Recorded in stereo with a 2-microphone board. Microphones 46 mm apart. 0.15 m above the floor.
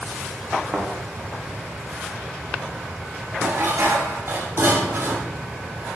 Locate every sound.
0.7 s a thud: 30° right (ahead or behind), 5 m
3.4 s dishes clattering: 75° right (ahead or behind), 5 m